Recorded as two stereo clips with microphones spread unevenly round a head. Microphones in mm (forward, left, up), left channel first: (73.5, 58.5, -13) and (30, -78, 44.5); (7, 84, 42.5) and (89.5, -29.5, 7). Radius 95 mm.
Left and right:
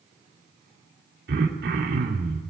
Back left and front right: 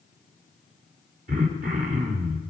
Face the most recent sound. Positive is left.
turn(degrees=-95)